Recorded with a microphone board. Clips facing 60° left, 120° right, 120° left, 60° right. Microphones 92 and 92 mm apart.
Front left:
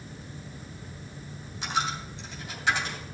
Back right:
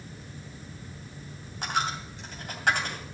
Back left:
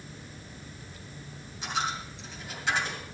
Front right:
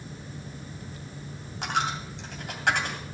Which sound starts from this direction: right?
A dropped coin, at 1.6 s.